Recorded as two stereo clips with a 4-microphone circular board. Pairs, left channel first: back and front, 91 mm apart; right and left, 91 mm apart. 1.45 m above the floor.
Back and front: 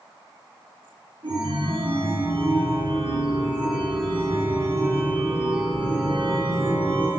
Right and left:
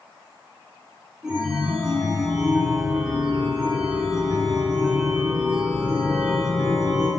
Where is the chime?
5° left, 3.5 m.